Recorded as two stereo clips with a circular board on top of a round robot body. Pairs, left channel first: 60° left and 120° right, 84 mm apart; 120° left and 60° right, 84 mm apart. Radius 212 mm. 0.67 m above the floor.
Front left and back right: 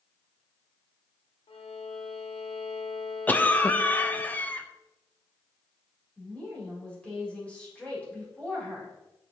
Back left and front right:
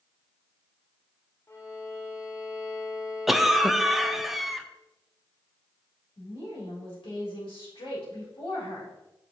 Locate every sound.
1.5 s a violin: 60° left, 0.9 m
3.3 s a cough: 25° left, 0.9 m
6.2 s a woman speaking: 135° left, 3.5 m